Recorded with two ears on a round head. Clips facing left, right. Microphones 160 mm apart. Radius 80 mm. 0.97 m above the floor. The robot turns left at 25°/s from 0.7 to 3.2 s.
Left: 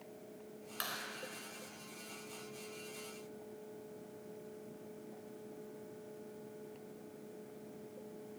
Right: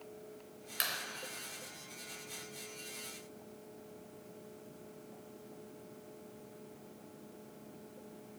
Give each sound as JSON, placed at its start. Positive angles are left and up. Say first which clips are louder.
{"t": 0.8, "sound": "a clap", "louder": "right 2 dB", "side_deg": -25, "distance_m": 3.5}